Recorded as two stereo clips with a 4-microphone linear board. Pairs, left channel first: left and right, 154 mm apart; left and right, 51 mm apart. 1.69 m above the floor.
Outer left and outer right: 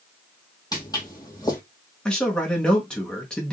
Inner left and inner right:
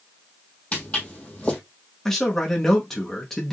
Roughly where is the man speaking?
Centre.